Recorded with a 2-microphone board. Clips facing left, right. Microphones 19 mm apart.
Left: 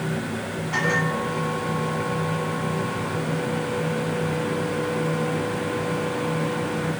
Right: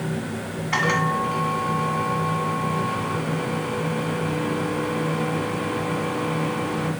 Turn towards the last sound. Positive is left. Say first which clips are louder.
# right 2 dB
turn(degrees=-45)  # may be behind; listen again after turning